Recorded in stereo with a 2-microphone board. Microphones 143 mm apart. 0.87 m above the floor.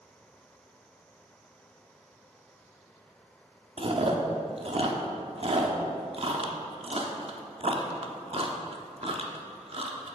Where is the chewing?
45° right (ahead or behind), 1.0 m.